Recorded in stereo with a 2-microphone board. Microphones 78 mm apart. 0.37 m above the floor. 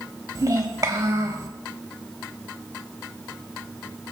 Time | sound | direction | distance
0.3 | a child speaking | 45° right (ahead or behind) | 1.1 m